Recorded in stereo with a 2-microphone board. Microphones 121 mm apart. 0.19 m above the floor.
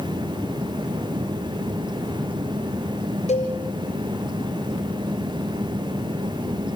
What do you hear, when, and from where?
3.3 s a cowbell: 65° left (ahead or behind), 4 m